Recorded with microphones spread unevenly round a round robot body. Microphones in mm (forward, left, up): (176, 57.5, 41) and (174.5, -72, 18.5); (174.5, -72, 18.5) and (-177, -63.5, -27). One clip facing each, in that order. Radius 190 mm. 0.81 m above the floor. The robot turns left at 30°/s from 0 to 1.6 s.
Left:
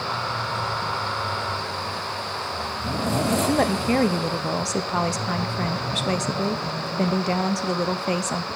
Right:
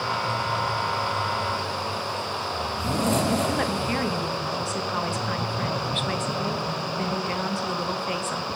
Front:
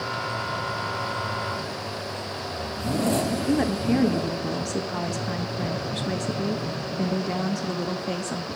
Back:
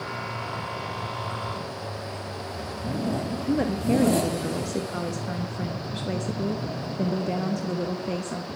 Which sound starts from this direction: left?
A woman speaking, at 3.5 s.